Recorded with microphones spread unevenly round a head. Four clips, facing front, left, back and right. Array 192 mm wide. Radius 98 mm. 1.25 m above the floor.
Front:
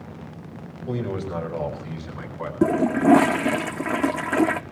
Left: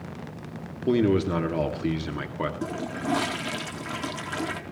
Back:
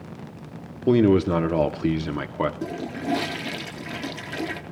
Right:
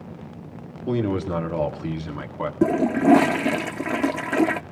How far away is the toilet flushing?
About 0.7 m.